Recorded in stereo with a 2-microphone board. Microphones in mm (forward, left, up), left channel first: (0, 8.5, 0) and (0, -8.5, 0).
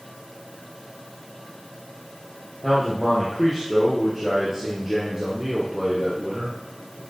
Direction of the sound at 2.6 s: 5° left (ahead or behind).